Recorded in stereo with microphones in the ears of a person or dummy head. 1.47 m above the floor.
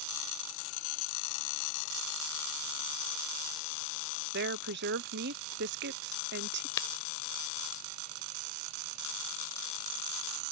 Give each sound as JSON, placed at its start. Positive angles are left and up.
{"t": 4.3, "sound": "a woman speaking", "side_deg": -55}
{"t": 6.8, "sound": "breaking glass", "side_deg": 20}